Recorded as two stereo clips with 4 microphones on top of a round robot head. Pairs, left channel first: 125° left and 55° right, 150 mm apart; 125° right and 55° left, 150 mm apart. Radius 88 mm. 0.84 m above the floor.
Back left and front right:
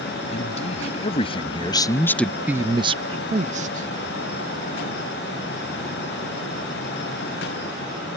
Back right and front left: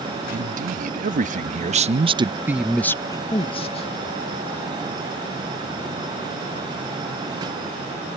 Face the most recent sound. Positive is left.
turn(degrees=-80)